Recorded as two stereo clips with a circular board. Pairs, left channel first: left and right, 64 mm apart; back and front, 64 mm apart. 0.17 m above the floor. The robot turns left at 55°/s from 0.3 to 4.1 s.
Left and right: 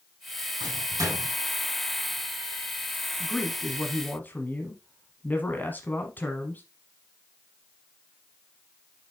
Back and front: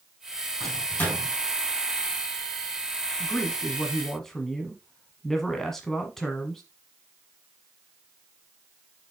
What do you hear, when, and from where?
0.6 s a microwave: 95° right, 4 m; by 1.3 s 135° right, 4 m
3.2 s a man speaking: 150° left, 1.2 m; by 6.6 s 100° left, 1.2 m